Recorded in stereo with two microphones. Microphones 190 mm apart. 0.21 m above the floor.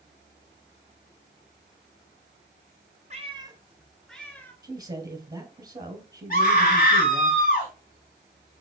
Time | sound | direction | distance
3.1 | a cat meowing | 35° right (ahead or behind) | 1.0 m
4.6 | a man speaking | 20° right (ahead or behind) | 2.0 m
6.3 | a scream | 45° left (ahead or behind) | 1.9 m